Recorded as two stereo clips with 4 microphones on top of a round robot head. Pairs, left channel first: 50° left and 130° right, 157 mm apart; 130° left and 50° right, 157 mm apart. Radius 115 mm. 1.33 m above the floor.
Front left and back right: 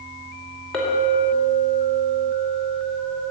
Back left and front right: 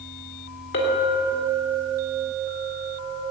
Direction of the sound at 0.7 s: 135° left.